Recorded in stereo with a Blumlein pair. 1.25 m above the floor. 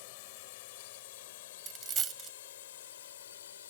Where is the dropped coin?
25° right.